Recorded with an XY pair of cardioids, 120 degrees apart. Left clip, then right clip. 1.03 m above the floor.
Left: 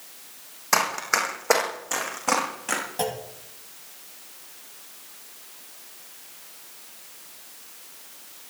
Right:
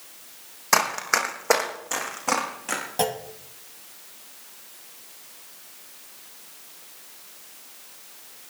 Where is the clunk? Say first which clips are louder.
Right 3 dB; 30° right, 1.3 m.